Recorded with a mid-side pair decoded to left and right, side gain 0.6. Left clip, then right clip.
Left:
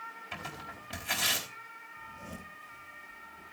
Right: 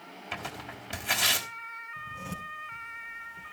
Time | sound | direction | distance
0.3 | tearing paper | 30° right | 4.5 m
2.0 | a zipper | 65° right | 7 m